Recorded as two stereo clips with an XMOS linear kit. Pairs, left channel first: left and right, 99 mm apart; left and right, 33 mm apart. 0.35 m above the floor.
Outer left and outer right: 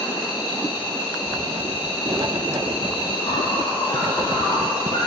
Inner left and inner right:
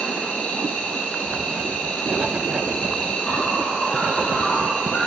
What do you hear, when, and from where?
0.0 s an insect: 45° left (ahead or behind), 4.5 m
1.3 s writing: 50° right (ahead or behind), 0.8 m